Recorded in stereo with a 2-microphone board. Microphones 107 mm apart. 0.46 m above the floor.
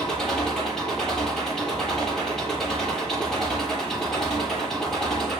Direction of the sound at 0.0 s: 5° left (ahead or behind).